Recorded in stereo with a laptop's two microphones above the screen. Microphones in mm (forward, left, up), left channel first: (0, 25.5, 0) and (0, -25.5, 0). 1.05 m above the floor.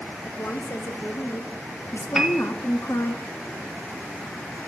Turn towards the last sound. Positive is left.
turn(degrees=-10)  # may be behind; listen again after turning